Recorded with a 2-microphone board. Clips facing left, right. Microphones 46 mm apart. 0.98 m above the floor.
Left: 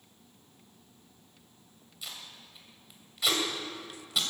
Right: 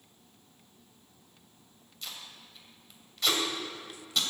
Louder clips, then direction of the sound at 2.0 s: Even; 5° left (ahead or behind).